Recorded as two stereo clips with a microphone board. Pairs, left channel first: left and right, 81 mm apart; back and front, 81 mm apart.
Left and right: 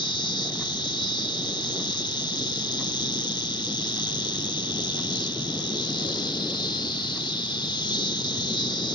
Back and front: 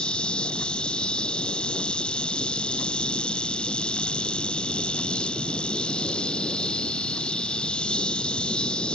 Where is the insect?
105° left.